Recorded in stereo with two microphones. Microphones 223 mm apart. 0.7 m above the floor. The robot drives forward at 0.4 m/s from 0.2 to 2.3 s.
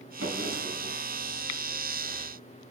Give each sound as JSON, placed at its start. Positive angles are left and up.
{"t": 0.2, "sound": "a drawer", "side_deg": -70, "distance_m": 3.0}